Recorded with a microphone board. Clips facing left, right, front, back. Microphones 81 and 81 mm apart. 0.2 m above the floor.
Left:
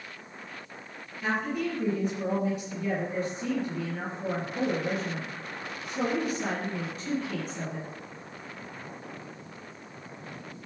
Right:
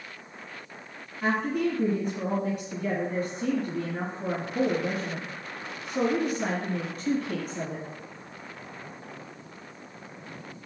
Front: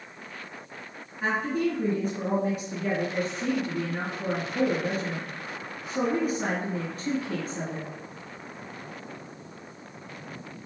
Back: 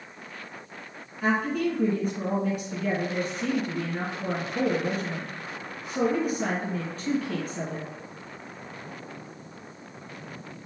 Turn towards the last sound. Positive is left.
turn(degrees=-70)